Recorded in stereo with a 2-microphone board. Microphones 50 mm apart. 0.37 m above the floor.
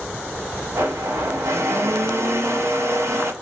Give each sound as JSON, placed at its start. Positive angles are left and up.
{"t": 0.8, "sound": "a blender", "side_deg": -65, "distance_m": 1.1}